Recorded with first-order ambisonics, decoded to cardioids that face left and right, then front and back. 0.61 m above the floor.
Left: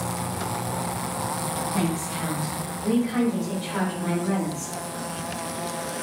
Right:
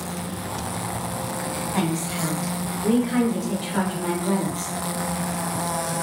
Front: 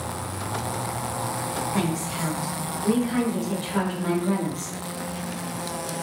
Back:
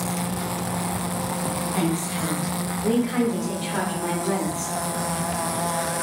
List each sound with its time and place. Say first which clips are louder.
1.7 s a woman speaking: right 2 dB, back 2 dB; 70° right, 1.2 m; by 4.7 s 155° left, 1.8 m